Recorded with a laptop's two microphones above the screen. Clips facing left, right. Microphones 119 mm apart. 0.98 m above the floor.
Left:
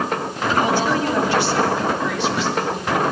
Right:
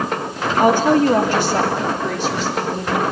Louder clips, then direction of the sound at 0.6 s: Right 8 dB; 50° right (ahead or behind).